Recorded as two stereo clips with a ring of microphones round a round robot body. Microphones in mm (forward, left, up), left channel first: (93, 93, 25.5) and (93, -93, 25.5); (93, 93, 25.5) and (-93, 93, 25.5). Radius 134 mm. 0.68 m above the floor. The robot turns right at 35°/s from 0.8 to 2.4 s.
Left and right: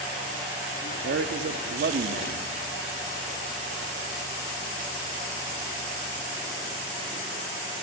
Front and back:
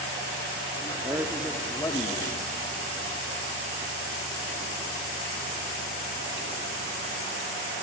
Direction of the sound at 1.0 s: 105° right.